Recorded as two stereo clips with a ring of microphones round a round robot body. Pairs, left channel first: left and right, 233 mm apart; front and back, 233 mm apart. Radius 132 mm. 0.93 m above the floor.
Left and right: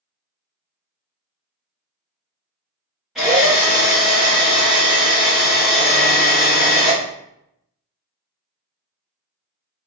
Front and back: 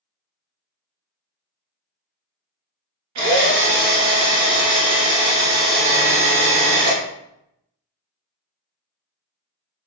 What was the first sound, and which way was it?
A drill, straight behind.